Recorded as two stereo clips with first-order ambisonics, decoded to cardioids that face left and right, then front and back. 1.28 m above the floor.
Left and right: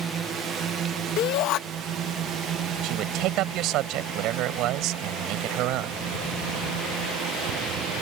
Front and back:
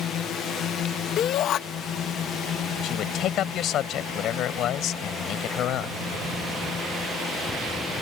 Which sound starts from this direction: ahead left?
A shout, at 1.2 s.